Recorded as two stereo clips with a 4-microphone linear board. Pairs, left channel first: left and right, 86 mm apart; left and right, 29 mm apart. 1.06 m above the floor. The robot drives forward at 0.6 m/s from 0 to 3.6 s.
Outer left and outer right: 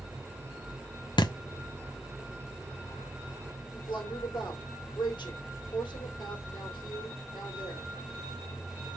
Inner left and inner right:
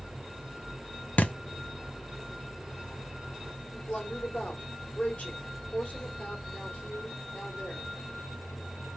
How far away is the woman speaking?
About 3.5 m.